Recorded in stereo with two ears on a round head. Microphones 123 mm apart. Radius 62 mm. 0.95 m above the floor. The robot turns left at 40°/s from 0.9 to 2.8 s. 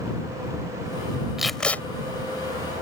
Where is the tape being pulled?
5° right (ahead or behind); by 1.8 s 15° left (ahead or behind).